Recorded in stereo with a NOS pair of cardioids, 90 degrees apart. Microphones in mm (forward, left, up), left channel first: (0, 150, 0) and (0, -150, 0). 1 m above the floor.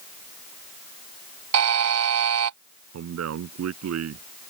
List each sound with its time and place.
1.5 s a buzzer: 65° right
2.9 s a man speaking: 65° right